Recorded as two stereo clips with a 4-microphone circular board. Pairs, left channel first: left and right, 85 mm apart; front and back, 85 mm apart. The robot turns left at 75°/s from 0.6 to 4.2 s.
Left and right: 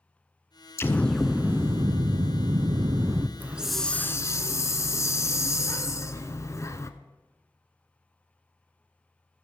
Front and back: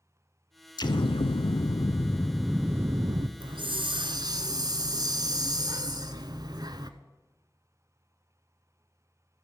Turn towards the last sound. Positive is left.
turn(degrees=145)